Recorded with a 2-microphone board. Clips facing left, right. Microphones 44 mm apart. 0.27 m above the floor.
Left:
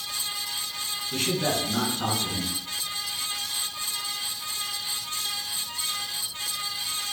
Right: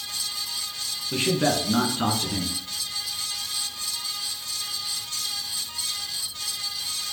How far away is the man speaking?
About 2.5 m.